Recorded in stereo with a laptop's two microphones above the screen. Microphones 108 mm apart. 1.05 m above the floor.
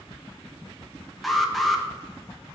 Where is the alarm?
Centre (ahead or behind), 1.4 m.